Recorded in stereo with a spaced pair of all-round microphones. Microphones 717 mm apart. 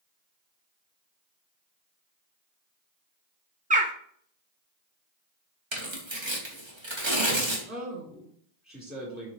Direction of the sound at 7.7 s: 10° right (ahead or behind).